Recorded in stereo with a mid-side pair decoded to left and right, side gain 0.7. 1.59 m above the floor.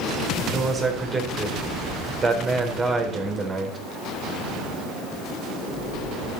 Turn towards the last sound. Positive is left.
turn(degrees=-25)